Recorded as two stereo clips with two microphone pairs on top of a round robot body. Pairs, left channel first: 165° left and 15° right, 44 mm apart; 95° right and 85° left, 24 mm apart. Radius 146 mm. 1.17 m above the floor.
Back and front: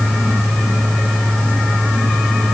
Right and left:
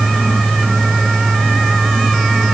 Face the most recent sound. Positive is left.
No sound to turn to.